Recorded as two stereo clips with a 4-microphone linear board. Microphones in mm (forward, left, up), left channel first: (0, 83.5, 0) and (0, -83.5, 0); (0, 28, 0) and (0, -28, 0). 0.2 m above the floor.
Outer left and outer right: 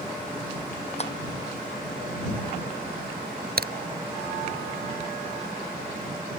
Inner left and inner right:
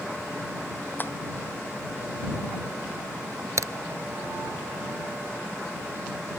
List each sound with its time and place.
1.0 s tapping: 40° left (ahead or behind)
3.6 s a crack: 65° right (ahead or behind)